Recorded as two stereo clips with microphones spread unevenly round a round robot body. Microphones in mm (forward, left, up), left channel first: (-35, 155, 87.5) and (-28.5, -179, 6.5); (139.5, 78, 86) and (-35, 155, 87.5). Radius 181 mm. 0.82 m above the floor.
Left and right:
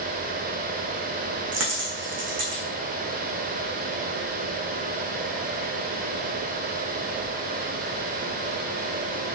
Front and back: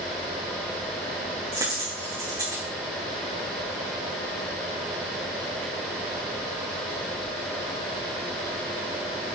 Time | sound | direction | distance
1.5 | a dropped coin | 140° right | 4.5 m